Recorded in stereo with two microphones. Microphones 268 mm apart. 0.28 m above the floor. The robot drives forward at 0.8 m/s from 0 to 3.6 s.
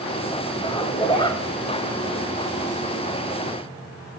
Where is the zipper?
20° left (ahead or behind), 1.3 m; by 1.4 s 15° left (ahead or behind), 1.4 m.